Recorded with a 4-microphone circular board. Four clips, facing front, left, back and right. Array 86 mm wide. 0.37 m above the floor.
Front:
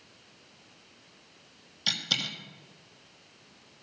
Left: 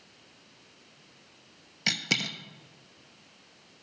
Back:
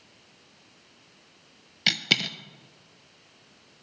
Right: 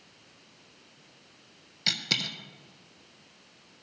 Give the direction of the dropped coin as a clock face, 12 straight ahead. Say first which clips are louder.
Left 2 dB, back 7 dB; 7 o'clock.